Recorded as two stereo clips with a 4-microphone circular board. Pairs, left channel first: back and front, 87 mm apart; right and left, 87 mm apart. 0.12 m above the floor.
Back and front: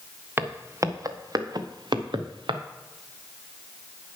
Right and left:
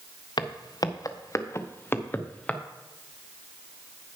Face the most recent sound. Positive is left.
turn(degrees=-10)